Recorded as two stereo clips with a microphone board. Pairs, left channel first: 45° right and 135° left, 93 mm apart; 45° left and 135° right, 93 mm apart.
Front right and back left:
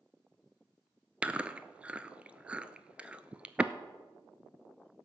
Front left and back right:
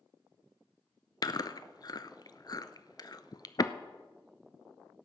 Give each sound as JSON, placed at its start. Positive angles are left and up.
{"t": 1.2, "sound": "chewing", "azimuth_deg": 65, "distance_m": 0.6}